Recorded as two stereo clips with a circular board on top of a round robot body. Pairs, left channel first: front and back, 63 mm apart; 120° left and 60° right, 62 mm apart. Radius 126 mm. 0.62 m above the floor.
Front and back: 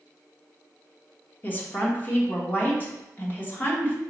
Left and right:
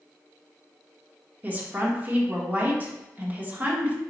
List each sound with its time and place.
1.4 s a woman speaking: 25° right, 1.3 m